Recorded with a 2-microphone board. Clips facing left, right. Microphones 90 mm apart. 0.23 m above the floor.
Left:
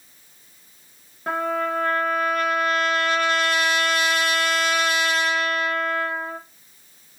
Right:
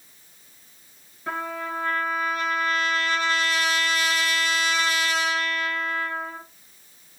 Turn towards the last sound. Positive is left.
turn(degrees=60)  # may be behind; listen again after turning